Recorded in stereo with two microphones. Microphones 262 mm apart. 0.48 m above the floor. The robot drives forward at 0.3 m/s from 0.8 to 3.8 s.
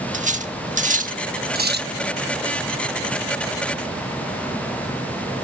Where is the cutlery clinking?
30° right (ahead or behind), 0.7 m; by 1.9 s 45° right (ahead or behind), 0.5 m.